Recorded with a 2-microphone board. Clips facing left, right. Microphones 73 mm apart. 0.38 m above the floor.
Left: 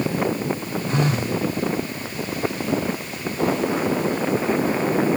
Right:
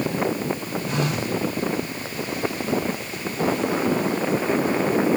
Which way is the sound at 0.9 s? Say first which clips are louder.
Left 3 dB; 30° left (ahead or behind).